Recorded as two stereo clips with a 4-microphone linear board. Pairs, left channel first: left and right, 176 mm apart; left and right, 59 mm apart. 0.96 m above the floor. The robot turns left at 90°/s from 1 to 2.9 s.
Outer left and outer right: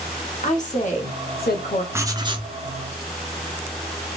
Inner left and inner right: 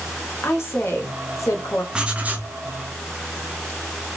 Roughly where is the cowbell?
I don't hear a cowbell.